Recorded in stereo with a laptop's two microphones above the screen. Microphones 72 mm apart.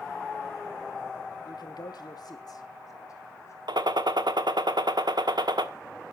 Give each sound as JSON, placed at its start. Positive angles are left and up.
{"t": 1.4, "sound": "a man speaking", "side_deg": 75, "distance_m": 1.7}
{"t": 3.7, "sound": "a gunshot", "side_deg": -80, "distance_m": 1.3}